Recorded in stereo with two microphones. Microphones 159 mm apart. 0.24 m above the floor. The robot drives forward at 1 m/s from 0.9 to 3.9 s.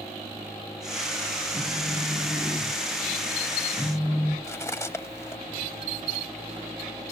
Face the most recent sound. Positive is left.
turn(degrees=15)  # may be behind; listen again after turning